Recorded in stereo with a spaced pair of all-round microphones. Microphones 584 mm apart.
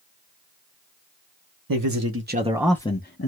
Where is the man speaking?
35° right (ahead or behind), 0.9 m; by 3.3 s 25° left (ahead or behind), 0.7 m.